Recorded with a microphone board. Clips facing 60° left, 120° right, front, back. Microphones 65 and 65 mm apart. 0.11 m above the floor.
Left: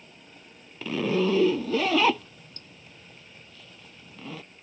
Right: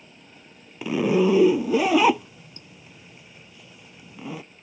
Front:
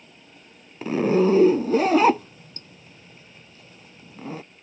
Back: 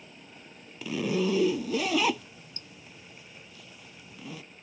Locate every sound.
0.8 s a zipper: 45° right